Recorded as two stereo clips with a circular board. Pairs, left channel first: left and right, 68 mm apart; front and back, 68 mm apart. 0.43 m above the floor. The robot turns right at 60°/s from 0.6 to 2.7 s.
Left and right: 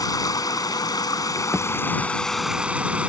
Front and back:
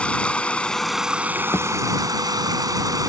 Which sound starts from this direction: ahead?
A thud, at 1.5 s.